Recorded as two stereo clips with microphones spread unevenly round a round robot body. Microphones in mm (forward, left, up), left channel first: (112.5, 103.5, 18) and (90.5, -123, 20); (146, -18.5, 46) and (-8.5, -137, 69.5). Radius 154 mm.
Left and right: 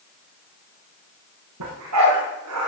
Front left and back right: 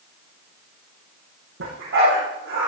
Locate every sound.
1.6 s a dog barking: 130° right, 9 m; by 2.7 s 135° right, 8.5 m